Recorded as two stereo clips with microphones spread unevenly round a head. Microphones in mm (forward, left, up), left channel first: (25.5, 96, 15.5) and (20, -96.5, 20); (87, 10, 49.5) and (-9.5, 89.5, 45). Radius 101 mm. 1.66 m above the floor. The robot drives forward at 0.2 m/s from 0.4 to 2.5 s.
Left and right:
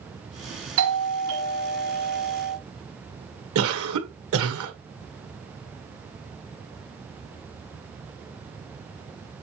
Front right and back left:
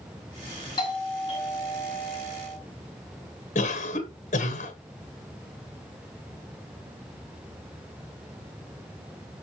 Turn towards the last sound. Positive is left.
turn(degrees=-85)